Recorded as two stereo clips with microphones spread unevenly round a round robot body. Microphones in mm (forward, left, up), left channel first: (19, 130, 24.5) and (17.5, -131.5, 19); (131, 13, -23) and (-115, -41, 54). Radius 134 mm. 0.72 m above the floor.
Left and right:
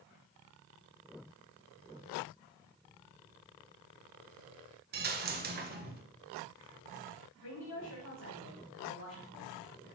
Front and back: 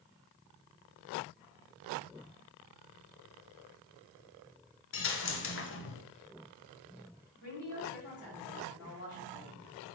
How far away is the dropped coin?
About 0.9 m.